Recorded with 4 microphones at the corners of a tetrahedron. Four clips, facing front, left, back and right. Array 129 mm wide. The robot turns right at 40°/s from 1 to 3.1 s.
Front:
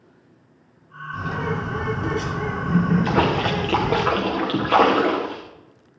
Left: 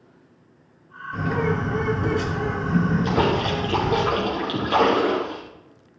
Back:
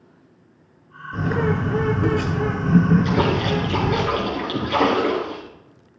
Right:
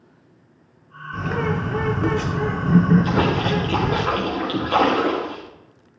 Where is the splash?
Straight ahead, 4.5 m.